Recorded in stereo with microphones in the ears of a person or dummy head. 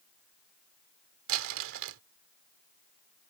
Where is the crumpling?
75° right (ahead or behind).